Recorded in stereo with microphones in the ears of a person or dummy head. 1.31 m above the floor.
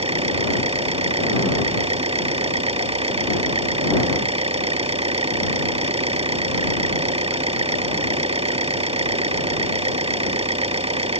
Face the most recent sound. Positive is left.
turn(degrees=-30)  # may be behind; listen again after turning